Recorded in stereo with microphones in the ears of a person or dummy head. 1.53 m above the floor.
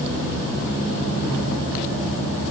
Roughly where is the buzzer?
I don't hear a buzzer.